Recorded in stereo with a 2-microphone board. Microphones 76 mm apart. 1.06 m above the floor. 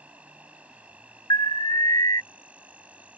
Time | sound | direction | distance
0.0 | an insect | 15° right (ahead or behind) | ?
1.3 | an alarm | 60° left (ahead or behind) | ?